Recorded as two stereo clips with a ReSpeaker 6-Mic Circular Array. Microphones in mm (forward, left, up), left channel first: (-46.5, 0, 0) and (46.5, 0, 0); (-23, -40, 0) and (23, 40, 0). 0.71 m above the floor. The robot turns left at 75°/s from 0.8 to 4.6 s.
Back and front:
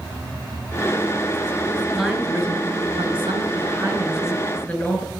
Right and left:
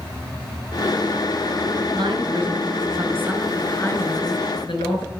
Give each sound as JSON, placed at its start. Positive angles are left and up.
{"t": 1.9, "sound": "a woman speaking", "azimuth_deg": 90, "distance_m": 4.5}